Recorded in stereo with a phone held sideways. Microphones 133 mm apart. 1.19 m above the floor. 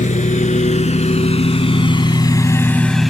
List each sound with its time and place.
0.0 s a lawn mower: 65° left (ahead or behind); by 3.1 s centre (ahead or behind)